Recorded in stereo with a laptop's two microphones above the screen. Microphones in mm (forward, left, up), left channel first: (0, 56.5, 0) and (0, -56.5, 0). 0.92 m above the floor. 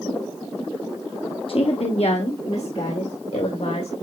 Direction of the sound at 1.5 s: 55° left (ahead or behind).